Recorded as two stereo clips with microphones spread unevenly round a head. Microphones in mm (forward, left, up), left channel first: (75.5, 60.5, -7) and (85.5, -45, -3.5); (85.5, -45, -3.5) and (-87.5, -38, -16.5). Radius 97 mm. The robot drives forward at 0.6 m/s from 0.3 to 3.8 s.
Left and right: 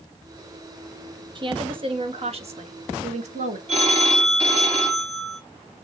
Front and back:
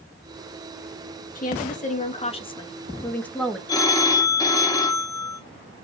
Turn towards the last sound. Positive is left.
turn(degrees=-70)